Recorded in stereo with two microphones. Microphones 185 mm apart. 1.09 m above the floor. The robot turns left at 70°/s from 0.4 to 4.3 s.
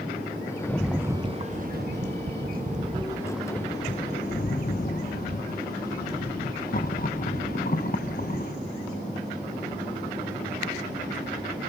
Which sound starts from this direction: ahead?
A rattle, at 0.6 s.